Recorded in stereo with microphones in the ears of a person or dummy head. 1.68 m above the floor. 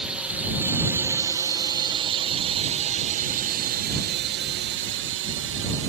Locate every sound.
0.0 s a drone: 5° right (ahead or behind); by 5.9 s 65° right (ahead or behind)